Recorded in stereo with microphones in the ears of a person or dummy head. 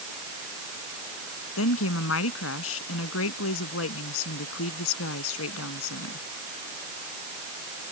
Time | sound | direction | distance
1.6 | a woman speaking | 85° left | ?